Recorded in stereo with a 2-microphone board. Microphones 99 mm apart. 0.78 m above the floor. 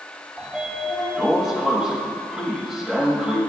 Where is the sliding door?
Centre (ahead or behind), 0.7 m.